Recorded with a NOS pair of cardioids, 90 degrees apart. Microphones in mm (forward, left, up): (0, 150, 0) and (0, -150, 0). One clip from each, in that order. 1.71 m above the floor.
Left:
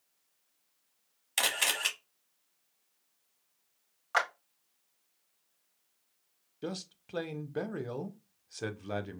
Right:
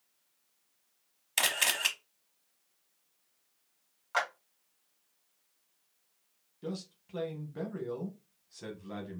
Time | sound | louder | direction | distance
1.4 | a camera shutter | right 1 dB | 5° right | 1.0 m
4.1 | a clap | left 2 dB | 25° left | 2 m
6.6 | a man speaking | left 2 dB | 45° left | 0.9 m